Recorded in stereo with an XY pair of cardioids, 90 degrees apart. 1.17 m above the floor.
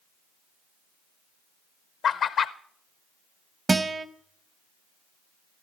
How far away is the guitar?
About 0.9 m.